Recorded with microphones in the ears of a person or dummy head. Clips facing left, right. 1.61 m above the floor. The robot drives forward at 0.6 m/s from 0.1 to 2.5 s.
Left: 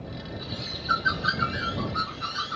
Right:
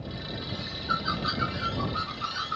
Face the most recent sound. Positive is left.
turn(degrees=10)  # may be behind; listen again after turning